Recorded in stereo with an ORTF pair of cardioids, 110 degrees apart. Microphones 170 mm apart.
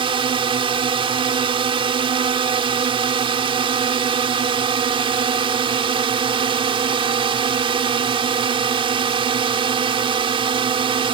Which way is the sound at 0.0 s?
30° right.